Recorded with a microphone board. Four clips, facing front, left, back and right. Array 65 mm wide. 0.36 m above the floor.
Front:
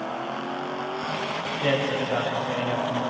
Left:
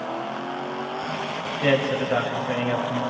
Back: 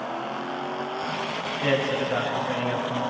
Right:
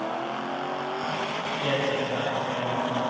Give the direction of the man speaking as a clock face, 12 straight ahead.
9 o'clock.